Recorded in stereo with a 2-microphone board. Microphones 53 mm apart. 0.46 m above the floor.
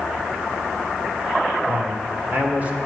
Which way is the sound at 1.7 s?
45° right (ahead or behind).